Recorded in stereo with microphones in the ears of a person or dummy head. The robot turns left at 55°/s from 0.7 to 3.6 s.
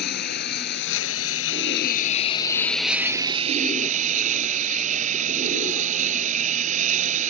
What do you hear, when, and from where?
0.0 s a lawn mower: 115° left; by 7.3 s 45° right